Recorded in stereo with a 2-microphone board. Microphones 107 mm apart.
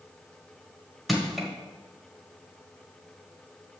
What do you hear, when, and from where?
1.1 s crushing: centre (ahead or behind), 1.6 m